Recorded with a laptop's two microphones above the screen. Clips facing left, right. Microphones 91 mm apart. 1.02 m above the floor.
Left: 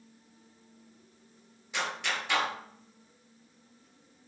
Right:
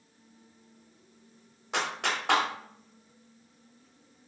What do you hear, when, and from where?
1.7 s a clap: 85° right, 2.5 m